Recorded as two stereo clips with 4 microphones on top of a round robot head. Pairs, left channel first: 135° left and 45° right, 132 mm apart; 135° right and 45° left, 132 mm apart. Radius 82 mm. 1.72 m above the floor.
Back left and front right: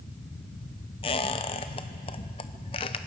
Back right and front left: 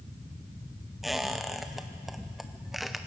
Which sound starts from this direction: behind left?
A squeak, at 1.0 s.